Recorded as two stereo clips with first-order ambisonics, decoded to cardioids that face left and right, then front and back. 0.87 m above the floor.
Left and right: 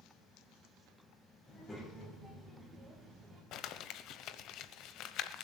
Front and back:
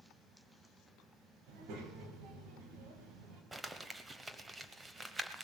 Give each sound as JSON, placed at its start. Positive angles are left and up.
{"t": 1.5, "sound": "a child speaking", "azimuth_deg": 165, "distance_m": 3.0}
{"t": 3.5, "sound": "crumpling", "azimuth_deg": 105, "distance_m": 0.8}